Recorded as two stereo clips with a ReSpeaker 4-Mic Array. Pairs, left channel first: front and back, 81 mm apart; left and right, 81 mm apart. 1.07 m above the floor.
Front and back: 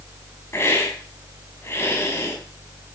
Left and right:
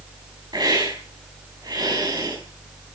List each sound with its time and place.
0.5 s a hiss: 60° right, 6 m